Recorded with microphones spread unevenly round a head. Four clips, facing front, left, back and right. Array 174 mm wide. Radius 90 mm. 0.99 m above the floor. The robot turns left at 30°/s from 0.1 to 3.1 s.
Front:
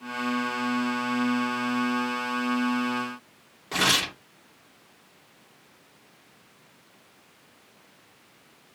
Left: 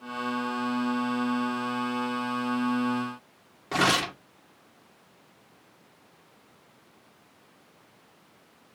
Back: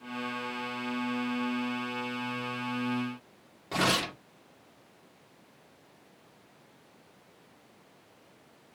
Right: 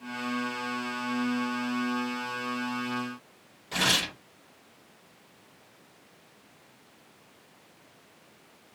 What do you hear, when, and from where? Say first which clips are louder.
3.7 s tearing paper: left 5 dB, front 2 dB; 75° left, 2 m